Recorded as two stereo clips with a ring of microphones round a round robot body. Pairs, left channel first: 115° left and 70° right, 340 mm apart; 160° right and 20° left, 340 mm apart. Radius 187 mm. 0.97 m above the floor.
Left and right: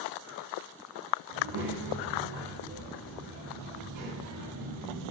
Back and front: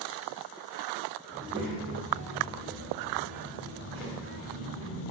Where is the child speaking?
55° right, 1.9 m; by 5.1 s 15° right, 3.5 m.